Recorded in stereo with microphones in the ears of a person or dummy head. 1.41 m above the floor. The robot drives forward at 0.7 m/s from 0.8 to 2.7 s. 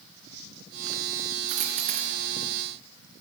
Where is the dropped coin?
50° right (ahead or behind), 2.5 m; by 2.1 s 45° right (ahead or behind), 2.5 m.